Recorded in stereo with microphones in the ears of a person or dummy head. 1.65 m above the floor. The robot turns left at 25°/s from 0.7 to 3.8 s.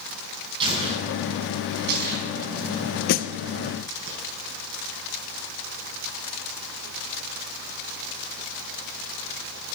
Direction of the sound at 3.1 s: 55° left (ahead or behind).